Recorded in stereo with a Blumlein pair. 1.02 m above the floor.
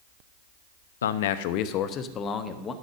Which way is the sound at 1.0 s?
65° left.